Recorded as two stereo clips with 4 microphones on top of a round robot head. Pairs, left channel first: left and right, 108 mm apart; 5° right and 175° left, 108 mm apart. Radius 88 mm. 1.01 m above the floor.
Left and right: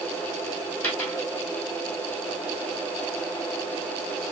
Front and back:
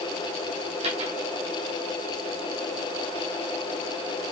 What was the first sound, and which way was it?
A dropped coin, 165° left.